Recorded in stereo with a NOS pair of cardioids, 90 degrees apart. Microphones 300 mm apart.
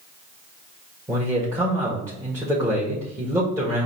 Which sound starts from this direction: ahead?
A man speaking, at 1.1 s.